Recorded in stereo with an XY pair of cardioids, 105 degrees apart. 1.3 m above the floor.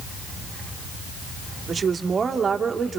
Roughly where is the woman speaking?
Ahead right.